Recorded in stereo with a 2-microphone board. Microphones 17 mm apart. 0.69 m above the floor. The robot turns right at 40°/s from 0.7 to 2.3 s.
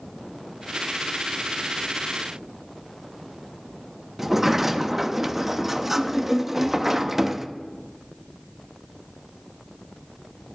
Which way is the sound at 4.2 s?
10° right (ahead or behind).